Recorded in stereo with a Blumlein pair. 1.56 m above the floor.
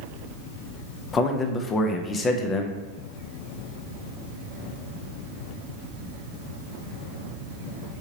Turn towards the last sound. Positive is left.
turn(degrees=20)